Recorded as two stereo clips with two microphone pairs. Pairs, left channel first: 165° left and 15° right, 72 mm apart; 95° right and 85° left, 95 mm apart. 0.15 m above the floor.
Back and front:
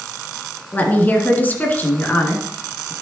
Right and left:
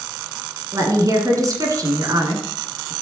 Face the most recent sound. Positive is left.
turn(degrees=115)